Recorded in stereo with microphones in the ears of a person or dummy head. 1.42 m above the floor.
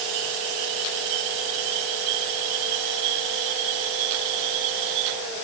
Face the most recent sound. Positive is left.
No sound to turn to.